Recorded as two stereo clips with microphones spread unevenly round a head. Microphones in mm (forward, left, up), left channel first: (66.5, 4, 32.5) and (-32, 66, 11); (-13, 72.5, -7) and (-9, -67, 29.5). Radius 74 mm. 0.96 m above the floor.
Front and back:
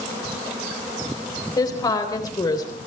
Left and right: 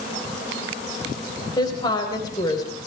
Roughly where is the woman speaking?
Ahead left.